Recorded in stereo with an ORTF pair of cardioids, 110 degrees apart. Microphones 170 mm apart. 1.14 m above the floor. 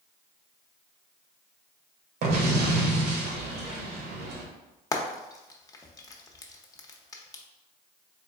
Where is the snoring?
No snoring in this recording.